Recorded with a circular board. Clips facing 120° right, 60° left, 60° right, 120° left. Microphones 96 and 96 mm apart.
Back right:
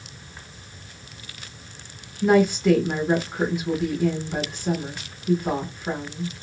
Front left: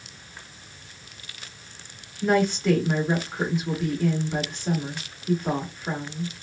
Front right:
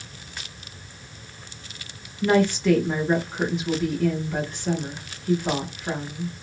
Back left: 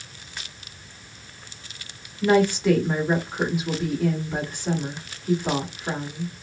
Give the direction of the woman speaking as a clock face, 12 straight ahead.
6 o'clock.